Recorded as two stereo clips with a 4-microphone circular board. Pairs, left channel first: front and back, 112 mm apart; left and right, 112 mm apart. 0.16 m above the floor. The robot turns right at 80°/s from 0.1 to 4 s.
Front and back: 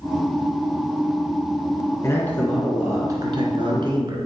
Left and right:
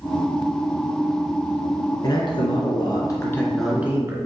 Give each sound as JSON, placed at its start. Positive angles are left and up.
{"t": 2.0, "sound": "a man speaking", "azimuth_deg": 50, "distance_m": 1.6}